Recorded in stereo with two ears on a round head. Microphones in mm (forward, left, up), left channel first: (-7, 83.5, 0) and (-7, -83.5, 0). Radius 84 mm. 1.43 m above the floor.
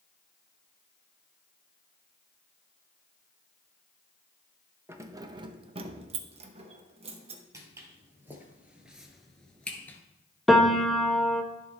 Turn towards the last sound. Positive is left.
turn(degrees=0)  # may be behind; listen again after turning